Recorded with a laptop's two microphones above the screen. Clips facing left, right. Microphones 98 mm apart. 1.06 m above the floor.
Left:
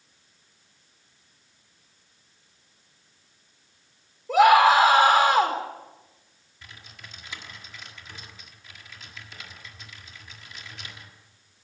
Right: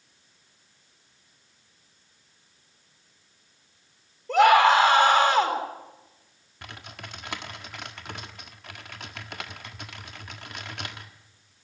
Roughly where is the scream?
Centre.